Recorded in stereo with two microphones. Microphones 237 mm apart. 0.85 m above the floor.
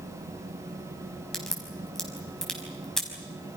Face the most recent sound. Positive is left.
turn(degrees=0)  # may be behind; listen again after turning